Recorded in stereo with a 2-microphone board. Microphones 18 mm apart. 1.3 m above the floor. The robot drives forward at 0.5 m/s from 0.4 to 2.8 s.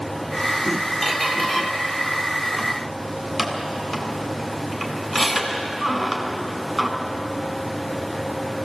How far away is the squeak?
About 2.5 m.